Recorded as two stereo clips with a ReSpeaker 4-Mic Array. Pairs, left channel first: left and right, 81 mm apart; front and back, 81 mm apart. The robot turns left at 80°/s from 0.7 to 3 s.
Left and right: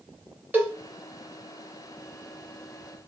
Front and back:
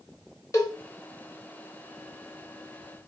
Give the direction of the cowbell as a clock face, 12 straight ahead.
1 o'clock.